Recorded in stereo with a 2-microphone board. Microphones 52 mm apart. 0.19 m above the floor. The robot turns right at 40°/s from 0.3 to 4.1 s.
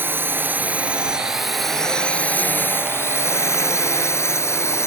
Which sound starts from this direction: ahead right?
A drone, at 0.0 s.